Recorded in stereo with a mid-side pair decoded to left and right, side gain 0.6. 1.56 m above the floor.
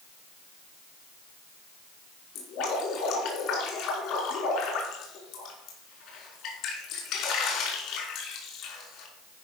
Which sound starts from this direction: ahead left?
Dripping, at 2.4 s.